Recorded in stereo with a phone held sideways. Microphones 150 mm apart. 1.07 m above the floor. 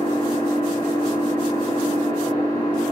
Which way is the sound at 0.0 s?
20° left (ahead or behind).